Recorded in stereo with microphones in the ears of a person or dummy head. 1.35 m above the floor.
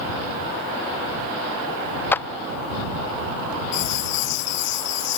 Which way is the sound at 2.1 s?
10° left (ahead or behind).